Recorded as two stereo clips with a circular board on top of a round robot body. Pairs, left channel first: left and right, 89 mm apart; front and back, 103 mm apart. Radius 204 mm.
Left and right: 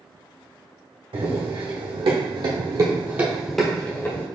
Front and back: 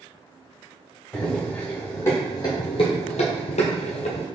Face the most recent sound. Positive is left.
turn(degrees=30)